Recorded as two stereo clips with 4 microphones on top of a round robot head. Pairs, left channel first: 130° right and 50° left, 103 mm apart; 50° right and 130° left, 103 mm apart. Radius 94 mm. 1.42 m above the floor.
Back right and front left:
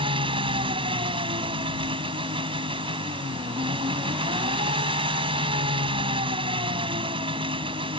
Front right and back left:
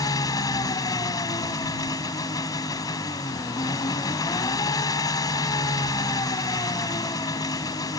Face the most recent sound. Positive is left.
turn(degrees=5)